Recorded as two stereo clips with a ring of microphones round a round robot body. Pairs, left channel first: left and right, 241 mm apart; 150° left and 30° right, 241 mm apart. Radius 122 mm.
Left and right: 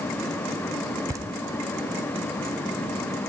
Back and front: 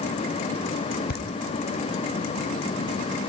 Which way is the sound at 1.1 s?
165° right.